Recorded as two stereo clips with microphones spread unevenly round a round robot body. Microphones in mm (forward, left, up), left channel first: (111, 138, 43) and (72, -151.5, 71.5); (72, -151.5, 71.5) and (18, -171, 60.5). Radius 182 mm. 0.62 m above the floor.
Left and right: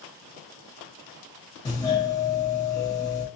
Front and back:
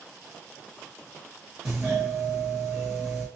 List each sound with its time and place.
1.6 s a doorbell: 145° left, 1.1 m